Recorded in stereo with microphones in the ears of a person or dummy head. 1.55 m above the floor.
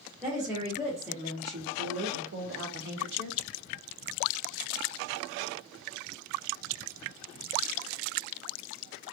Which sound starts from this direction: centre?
A woman speaking, at 0.2 s.